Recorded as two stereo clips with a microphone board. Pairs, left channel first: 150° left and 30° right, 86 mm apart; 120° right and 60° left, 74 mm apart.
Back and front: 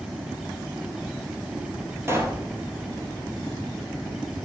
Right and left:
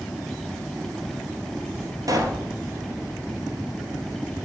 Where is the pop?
30° left, 1.2 m.